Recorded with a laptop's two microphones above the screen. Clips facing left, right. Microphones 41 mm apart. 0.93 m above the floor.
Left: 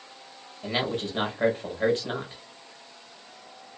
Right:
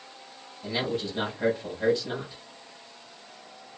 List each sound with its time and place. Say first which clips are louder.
0.6 s a man speaking: left 1 dB; 50° left (ahead or behind), 1.1 m